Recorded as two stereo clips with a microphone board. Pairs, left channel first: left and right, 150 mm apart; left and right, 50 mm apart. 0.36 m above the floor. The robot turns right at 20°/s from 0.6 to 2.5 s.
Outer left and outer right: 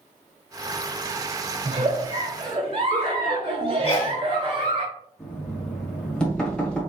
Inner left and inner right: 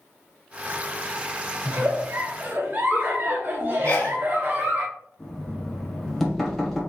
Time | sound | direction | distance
1.6 | a giggle | 40° right (ahead or behind) | 1.3 m
3.9 | a sneeze | 40° left (ahead or behind) | 1.6 m
5.2 | knocking | 5° left (ahead or behind) | 1.5 m